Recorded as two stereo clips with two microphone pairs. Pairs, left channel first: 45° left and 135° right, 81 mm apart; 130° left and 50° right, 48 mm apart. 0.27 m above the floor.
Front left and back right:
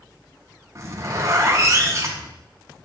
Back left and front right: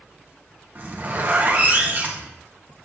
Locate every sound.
0.8 s a zipper: 95° right, 2 m